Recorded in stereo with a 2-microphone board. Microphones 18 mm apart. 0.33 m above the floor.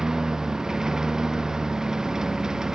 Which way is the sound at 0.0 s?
40° right (ahead or behind).